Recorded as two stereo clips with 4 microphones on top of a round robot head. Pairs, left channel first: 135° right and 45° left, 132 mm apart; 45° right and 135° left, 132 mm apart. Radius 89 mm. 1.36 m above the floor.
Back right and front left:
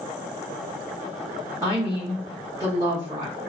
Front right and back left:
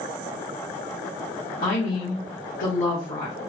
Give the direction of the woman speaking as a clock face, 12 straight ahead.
1 o'clock.